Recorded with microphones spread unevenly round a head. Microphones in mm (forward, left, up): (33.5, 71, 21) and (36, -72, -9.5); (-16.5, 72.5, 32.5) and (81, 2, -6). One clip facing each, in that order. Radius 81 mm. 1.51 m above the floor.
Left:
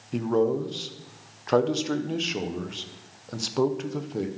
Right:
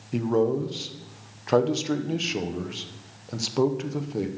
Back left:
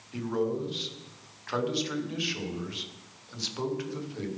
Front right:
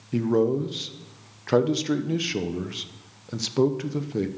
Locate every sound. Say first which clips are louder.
0.1 s a man speaking: right 1 dB, front right 8 dB; straight ahead, 0.8 m